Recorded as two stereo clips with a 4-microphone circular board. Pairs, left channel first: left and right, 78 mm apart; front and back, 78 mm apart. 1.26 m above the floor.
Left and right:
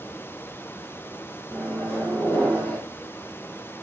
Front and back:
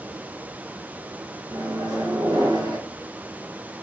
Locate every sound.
1.5 s a microwave: 160° left, 0.8 m